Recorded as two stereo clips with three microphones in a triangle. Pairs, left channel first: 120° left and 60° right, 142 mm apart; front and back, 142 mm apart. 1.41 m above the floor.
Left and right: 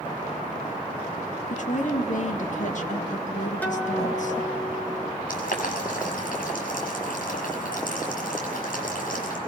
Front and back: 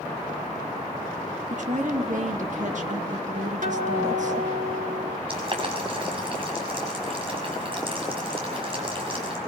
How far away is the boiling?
About 6.5 m.